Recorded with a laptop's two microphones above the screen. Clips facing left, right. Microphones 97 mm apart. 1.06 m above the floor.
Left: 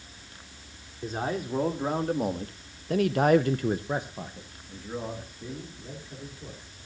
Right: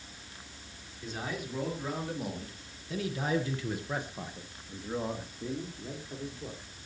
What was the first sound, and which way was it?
A man speaking, 40° left (ahead or behind).